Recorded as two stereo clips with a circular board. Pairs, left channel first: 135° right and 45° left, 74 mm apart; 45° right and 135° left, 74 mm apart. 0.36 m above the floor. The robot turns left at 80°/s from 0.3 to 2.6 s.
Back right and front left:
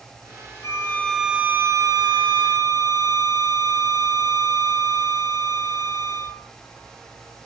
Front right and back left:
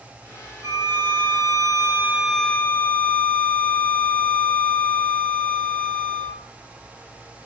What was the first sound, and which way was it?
A violin, straight behind.